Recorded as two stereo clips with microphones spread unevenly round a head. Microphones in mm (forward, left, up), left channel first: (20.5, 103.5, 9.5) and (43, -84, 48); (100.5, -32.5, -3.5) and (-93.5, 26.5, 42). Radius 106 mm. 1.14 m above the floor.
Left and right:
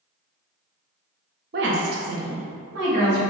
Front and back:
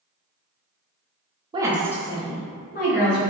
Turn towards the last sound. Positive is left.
turn(degrees=-60)